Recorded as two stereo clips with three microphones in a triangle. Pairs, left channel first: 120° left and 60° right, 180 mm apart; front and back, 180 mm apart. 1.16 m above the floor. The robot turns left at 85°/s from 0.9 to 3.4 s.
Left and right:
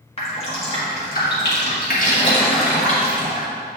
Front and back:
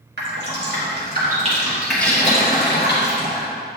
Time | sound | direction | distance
0.2 | dripping | 175° left | 1.6 m